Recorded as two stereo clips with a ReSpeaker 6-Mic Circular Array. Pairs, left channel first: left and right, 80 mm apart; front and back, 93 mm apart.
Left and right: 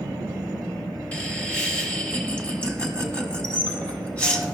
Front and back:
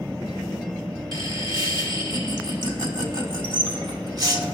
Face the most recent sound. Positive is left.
turn(degrees=160)